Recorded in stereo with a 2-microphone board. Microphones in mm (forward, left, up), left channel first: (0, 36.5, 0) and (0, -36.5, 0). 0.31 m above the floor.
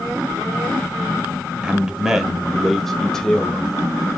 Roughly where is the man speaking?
Centre.